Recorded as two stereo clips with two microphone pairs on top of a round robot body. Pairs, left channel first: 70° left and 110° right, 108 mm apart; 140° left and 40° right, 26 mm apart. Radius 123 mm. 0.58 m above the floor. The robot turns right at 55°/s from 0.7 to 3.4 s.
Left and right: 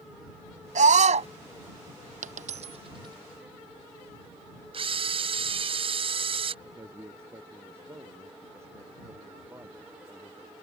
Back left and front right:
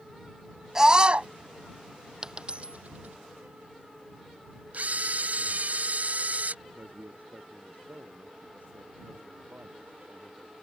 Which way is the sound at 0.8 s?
115° right.